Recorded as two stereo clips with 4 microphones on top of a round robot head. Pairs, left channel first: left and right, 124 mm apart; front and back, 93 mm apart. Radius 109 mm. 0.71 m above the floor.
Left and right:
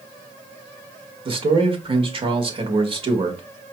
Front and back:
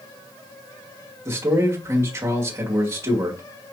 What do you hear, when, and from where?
1.2 s a man speaking: 125° right, 1.5 m